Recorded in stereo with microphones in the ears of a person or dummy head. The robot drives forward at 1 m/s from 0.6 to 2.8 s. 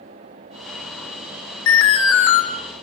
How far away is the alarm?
About 2.5 m.